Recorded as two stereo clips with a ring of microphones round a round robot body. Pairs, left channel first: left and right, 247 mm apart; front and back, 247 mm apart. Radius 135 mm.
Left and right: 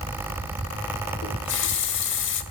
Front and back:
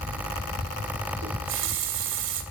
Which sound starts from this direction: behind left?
A running tap, at 1.2 s.